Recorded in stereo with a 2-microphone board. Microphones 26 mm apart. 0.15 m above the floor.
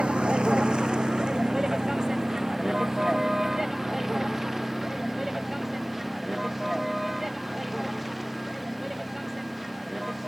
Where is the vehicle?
40° right (ahead or behind); by 10.3 s 10° right (ahead or behind).